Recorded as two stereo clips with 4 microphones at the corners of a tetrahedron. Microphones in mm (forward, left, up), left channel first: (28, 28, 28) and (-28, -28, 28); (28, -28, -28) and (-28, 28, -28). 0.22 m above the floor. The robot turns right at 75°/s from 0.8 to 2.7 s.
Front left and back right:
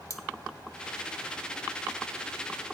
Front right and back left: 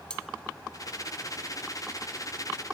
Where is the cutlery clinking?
25° left, 0.8 m.